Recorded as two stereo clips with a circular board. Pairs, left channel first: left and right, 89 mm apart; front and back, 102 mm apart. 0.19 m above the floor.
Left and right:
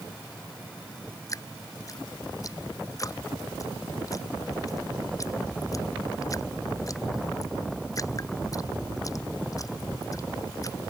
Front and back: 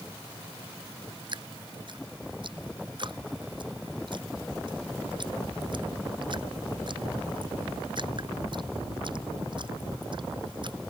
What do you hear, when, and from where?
1.3 s dripping: 140° left